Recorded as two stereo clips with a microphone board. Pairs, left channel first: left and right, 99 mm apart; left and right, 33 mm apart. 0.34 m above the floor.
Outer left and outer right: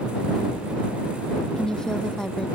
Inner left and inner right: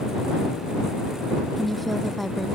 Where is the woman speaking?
5° left (ahead or behind).